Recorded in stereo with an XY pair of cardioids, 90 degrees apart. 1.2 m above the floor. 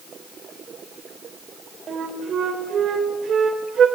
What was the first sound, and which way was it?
A flute, 60° right.